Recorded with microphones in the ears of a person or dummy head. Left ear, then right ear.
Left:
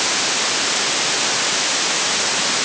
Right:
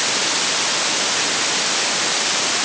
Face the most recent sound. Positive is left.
No sound to turn to.